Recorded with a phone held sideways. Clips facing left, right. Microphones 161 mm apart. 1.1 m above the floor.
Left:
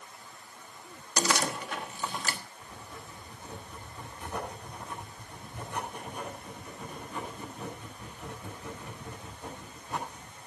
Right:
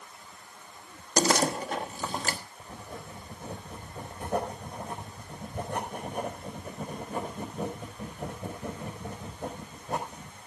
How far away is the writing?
About 5 m.